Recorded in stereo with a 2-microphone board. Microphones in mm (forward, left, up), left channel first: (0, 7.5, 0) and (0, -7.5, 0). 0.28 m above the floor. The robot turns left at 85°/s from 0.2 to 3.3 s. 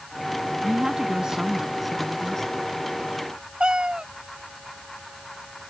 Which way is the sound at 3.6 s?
85° right.